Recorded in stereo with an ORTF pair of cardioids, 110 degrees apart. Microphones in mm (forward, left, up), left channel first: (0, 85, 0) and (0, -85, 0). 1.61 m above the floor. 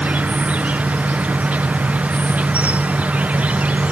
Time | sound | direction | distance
0.0 | an insect | 10° right | ?